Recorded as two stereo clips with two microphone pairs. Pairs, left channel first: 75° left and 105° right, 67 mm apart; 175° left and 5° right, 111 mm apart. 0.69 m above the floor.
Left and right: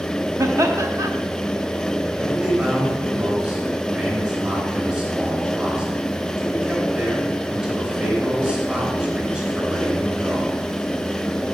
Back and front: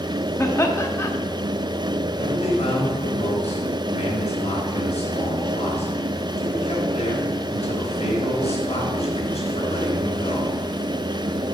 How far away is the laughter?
About 0.9 m.